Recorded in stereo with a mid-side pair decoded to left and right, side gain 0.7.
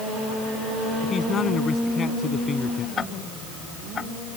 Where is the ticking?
30° left.